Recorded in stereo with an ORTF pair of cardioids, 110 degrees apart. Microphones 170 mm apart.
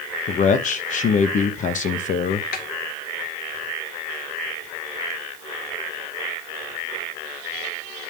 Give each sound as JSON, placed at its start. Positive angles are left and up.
{"t": 0.3, "sound": "a man speaking", "azimuth_deg": 50, "distance_m": 1.1}
{"t": 2.5, "sound": "a snare drum", "azimuth_deg": 65, "distance_m": 1.4}